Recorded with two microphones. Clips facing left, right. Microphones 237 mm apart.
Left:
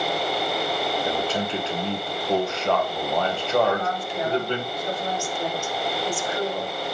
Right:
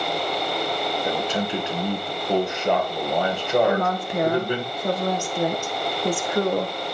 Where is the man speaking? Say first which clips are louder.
Right 1 dB; 15° right (ahead or behind), 2 m.